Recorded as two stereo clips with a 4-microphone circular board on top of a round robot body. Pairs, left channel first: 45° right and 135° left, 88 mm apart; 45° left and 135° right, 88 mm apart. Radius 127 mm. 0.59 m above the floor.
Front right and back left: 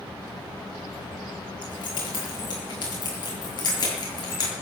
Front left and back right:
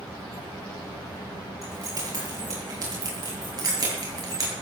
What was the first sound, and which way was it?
Keys jangling, 80° right.